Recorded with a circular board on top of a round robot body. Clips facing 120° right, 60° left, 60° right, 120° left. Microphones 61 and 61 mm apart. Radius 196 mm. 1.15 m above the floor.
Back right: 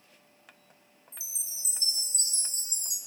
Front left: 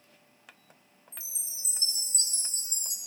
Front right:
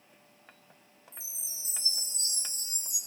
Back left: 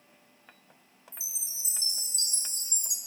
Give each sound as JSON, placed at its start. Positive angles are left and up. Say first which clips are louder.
{"t": 1.1, "sound": "a chime", "louder": "even, back left 3 dB", "azimuth_deg": 90, "distance_m": 0.7}